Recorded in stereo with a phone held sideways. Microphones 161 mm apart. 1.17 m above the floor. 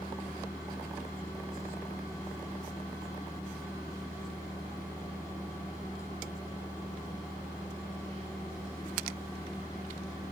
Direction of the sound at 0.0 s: 20° left (ahead or behind).